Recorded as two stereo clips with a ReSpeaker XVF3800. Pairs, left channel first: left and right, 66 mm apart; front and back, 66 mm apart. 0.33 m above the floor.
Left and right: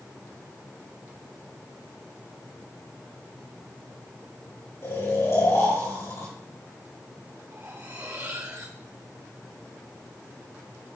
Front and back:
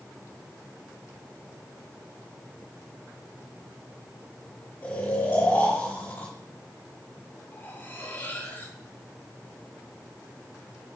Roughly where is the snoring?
Ahead left.